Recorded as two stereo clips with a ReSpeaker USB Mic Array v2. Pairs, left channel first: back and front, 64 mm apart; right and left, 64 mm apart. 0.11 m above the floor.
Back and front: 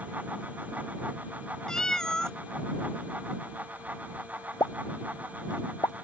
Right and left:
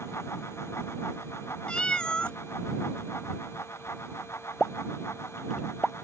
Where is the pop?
Straight behind.